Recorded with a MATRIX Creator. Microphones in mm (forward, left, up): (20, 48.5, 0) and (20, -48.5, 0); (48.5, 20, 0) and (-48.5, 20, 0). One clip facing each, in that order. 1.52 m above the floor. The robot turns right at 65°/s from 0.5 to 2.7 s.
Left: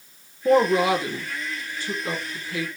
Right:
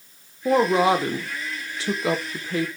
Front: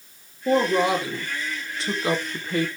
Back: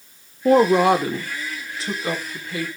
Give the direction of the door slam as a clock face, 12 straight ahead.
No door slam in this recording.